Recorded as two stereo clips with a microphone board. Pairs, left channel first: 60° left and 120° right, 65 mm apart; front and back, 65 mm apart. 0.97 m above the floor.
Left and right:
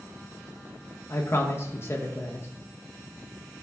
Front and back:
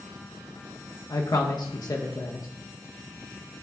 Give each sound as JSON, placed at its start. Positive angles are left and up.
{"t": 1.1, "sound": "a man speaking", "azimuth_deg": 10, "distance_m": 1.5}